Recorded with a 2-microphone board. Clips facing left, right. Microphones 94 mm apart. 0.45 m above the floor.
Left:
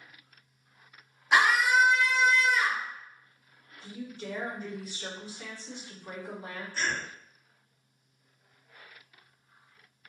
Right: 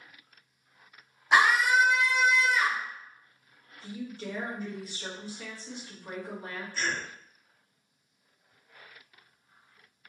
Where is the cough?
30° left (ahead or behind), 1.3 m.